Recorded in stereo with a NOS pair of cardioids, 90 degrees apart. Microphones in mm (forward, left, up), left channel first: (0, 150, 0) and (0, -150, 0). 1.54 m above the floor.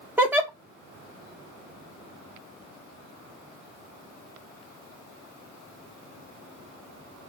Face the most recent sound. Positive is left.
turn(degrees=-5)